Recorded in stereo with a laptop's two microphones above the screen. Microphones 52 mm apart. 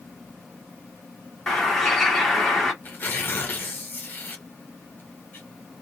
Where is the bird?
5° left (ahead or behind), 1.2 m.